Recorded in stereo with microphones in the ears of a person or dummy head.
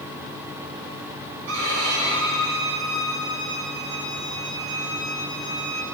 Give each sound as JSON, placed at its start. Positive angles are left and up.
{"t": 1.5, "sound": "a violin", "side_deg": -75, "distance_m": 6.0}